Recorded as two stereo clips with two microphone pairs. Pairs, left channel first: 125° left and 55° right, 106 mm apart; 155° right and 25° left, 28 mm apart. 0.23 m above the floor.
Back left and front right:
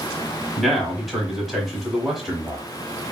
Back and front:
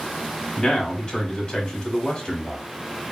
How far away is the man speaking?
About 1.1 m.